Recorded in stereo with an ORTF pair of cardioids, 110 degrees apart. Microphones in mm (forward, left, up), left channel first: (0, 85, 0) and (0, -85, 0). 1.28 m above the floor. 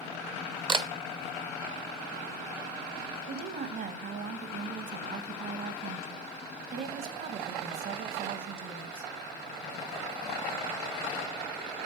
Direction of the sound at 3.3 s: 55° right.